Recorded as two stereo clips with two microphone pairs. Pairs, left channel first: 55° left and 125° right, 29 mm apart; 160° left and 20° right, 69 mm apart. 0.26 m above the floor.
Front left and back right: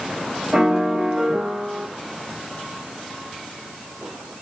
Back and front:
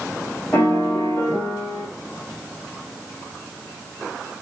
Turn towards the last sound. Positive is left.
turn(degrees=-160)